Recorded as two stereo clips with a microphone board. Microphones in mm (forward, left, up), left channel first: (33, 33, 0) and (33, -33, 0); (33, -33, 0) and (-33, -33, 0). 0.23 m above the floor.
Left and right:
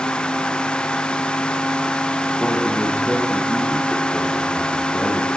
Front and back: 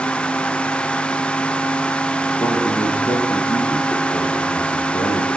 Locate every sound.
2.4 s a man speaking: 20° left, 9.5 m